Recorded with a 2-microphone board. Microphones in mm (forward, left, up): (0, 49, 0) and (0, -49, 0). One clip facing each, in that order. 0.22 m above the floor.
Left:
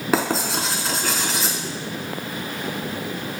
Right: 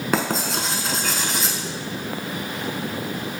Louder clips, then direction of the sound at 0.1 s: Left 2 dB; 5° left (ahead or behind).